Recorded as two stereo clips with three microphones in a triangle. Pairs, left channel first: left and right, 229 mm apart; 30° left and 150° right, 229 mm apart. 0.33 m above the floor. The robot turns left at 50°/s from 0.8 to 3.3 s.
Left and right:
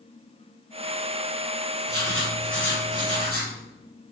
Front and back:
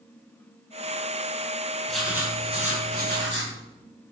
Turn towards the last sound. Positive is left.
turn(degrees=-125)